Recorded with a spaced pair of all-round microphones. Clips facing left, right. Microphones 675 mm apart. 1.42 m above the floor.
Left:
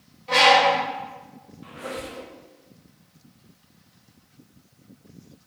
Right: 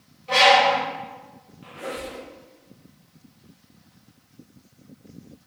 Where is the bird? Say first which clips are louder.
Even; 30° left (ahead or behind), 0.9 m.